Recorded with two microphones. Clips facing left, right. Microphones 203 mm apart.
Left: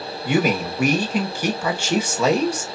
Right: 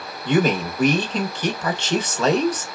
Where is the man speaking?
10° left (ahead or behind), 0.8 m.